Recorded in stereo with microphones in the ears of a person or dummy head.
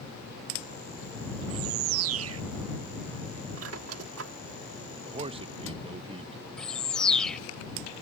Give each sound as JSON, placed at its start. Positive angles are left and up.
{"t": 1.5, "sound": "a bird", "side_deg": -80}
{"t": 3.6, "sound": "a squeak", "side_deg": -85}
{"t": 5.0, "sound": "a man speaking", "side_deg": -25}
{"t": 6.6, "sound": "a bird", "side_deg": 5}